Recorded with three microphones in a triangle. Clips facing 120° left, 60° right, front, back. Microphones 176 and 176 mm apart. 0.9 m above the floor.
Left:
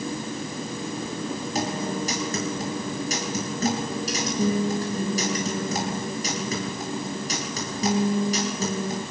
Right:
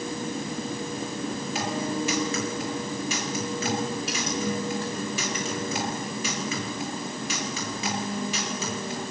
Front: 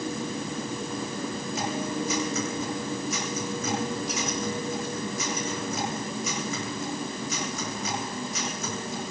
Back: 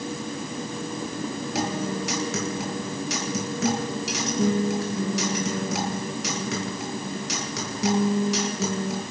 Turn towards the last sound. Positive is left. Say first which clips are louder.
# left 1 dB, back 3 dB
turn(degrees=170)